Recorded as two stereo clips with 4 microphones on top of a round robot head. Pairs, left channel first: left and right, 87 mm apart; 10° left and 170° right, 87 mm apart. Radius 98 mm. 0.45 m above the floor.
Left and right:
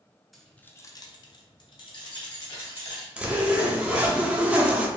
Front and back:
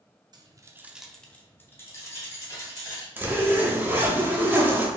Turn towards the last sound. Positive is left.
turn(degrees=-150)